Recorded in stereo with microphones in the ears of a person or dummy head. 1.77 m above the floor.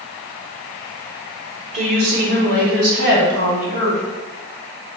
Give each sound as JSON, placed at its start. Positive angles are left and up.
{"t": 1.7, "sound": "a woman speaking", "side_deg": -45, "distance_m": 1.1}